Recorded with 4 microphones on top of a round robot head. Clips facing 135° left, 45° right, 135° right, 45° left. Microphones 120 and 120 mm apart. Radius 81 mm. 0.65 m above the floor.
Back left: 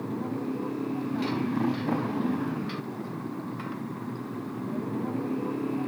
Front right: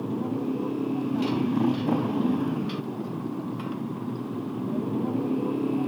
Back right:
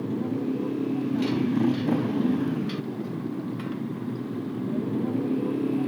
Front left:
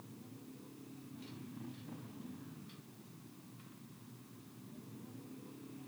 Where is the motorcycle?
125° right; by 5.9 s 120° right.